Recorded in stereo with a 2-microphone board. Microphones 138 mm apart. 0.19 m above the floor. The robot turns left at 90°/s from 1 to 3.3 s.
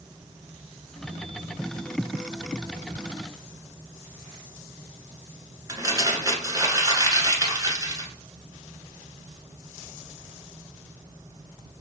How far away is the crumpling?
About 1.2 m.